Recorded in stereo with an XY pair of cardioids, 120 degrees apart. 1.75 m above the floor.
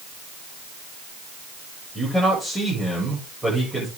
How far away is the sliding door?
I don't hear a sliding door.